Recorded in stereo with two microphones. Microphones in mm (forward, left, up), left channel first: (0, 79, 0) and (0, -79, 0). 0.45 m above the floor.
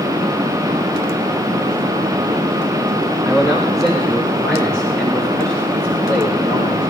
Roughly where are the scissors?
No scissors in this recording.